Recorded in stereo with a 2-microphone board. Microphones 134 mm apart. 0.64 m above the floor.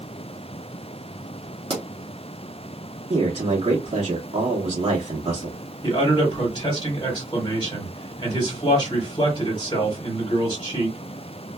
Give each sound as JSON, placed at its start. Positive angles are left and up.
{"t": 1.7, "sound": "a pop", "side_deg": -35, "distance_m": 1.0}
{"t": 3.1, "sound": "a man speaking", "side_deg": -50, "distance_m": 1.0}
{"t": 5.8, "sound": "a man speaking", "side_deg": 35, "distance_m": 1.6}